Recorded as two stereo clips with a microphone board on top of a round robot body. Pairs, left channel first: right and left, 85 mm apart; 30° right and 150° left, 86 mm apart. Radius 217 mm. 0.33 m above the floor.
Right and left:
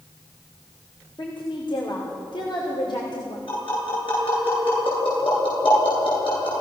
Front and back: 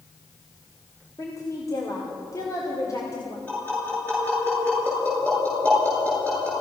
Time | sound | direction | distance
1.2 | a woman speaking | 75° right | 3 m
3.5 | tapping | 100° right | 9.5 m